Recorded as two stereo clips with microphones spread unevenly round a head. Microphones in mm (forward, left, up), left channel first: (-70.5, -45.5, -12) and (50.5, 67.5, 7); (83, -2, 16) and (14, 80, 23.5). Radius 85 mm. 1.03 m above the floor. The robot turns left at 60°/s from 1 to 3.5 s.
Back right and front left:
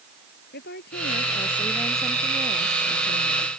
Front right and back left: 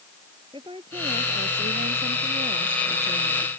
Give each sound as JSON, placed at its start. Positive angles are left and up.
{"t": 0.5, "sound": "a woman speaking", "azimuth_deg": -165}